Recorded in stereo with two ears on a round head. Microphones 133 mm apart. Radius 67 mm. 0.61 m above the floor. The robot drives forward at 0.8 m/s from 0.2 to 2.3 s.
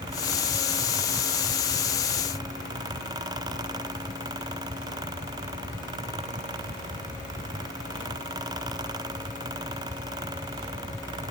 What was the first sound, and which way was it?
Only background noise.